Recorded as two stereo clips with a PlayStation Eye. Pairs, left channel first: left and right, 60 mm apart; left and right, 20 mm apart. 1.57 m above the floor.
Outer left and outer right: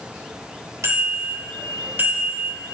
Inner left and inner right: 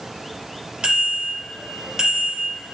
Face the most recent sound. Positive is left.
turn(degrees=-20)  # may be behind; listen again after turning